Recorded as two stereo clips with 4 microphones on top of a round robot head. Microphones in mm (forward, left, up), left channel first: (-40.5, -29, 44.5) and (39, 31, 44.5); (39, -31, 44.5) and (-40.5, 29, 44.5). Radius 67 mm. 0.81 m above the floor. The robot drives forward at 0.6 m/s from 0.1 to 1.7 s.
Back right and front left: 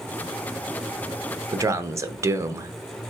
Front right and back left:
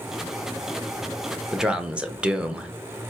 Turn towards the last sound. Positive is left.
turn(degrees=70)